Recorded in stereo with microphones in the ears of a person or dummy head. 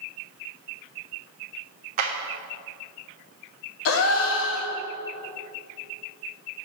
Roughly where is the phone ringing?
I don't hear a phone ringing.